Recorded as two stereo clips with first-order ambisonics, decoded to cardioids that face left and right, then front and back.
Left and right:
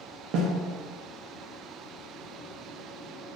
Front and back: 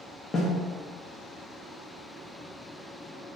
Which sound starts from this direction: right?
A snare drum, at 0.3 s.